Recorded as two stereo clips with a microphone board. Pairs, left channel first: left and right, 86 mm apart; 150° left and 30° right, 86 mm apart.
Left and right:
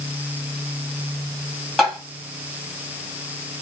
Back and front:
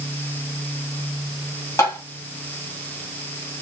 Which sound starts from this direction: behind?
Tapping, at 1.8 s.